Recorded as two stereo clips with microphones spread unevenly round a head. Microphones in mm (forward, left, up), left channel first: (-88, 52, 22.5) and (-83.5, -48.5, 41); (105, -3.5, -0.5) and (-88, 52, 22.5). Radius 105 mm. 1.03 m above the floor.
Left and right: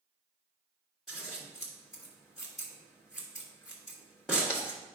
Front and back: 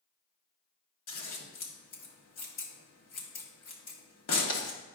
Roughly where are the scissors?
Ahead.